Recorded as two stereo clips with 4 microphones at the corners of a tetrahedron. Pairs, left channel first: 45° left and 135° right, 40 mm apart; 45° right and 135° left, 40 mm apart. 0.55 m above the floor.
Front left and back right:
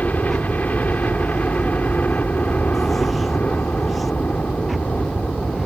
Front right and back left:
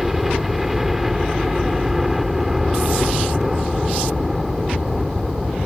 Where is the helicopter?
55° left.